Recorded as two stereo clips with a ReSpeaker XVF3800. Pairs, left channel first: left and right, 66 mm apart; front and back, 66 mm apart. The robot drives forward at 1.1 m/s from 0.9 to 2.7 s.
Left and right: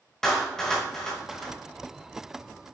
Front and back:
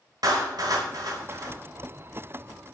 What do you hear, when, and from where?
0.2 s a clap: 170° left, 6 m; by 1.5 s 175° left, 7 m